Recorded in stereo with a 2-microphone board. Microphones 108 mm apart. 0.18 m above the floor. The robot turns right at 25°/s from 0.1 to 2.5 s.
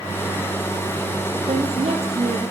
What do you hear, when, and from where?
1.5 s a woman speaking: 75° right (ahead or behind), 4.5 m; by 2.4 s 60° right (ahead or behind), 4.5 m